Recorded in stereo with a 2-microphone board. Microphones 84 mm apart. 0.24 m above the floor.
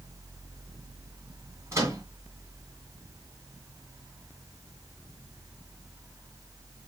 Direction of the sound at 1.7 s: 35° right (ahead or behind).